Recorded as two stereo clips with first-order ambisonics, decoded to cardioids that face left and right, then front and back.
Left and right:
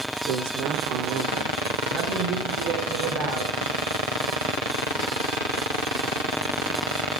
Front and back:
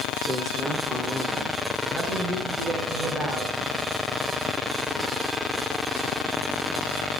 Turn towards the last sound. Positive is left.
turn(degrees=-105)